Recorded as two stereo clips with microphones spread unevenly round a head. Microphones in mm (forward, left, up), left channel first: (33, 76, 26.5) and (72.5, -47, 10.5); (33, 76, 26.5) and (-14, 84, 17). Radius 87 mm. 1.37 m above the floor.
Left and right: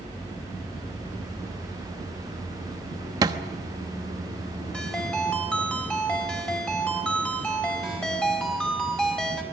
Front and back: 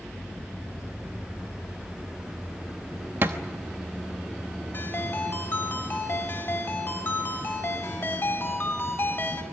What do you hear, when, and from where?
3.2 s a thud: 135° right, 0.8 m
4.7 s a ringtone: 25° left, 4.5 m